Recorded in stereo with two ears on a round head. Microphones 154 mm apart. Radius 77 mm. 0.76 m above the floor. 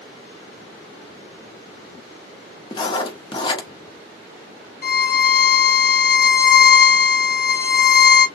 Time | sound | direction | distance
2.7 | writing | 25° left (ahead or behind) | 0.8 m
4.8 | a violin | 60° left (ahead or behind) | 1.0 m